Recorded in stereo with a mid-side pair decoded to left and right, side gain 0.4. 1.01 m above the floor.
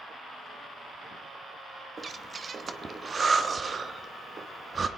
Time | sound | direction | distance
2.0 | breathing | 45° right | 1.0 m